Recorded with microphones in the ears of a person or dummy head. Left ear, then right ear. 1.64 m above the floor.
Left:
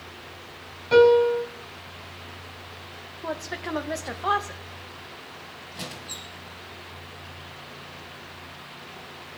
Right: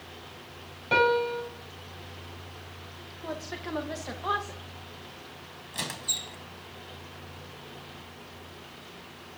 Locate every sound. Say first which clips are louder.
0.9 s a piano: left 7 dB; 15° right (ahead or behind), 3.5 m
3.2 s a woman speaking: left 5 dB; 25° left (ahead or behind), 1.6 m
5.7 s a squeak: right 5 dB; 50° right (ahead or behind), 2 m